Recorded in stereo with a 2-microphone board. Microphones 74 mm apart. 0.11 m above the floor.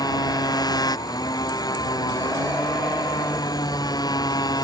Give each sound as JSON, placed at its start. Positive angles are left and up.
{"t": 0.0, "sound": "a motorcycle", "side_deg": 70}